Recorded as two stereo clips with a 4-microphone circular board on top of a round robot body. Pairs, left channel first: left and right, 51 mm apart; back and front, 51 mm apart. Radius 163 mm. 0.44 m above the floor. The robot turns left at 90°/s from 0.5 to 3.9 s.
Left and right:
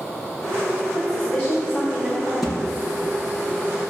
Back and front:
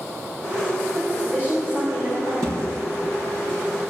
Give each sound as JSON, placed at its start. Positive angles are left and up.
{"t": 0.9, "sound": "a woman speaking", "azimuth_deg": 100, "distance_m": 3.0}
{"t": 2.4, "sound": "a thud", "azimuth_deg": 5, "distance_m": 2.5}